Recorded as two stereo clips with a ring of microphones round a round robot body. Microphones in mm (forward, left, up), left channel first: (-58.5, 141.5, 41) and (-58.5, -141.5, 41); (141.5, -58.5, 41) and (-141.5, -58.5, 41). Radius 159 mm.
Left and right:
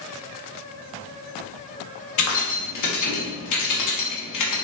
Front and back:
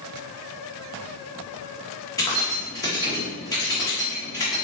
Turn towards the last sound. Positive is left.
turn(degrees=80)